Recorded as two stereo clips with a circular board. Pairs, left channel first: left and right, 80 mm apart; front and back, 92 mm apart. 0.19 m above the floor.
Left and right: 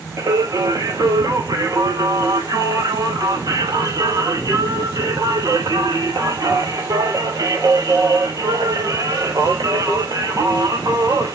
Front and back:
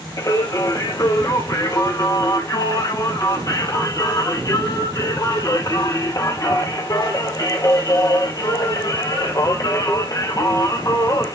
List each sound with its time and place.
0.2 s singing: 50° right, 2 m